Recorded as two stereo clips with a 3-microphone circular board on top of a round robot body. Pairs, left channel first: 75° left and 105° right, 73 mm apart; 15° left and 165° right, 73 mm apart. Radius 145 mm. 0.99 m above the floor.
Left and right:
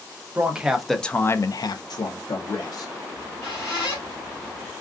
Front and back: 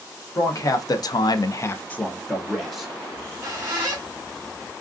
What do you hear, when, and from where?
0.3 s a man speaking: 30° right, 0.9 m; by 2.9 s 105° left, 1.2 m
3.1 s a squeak: 155° left, 1.1 m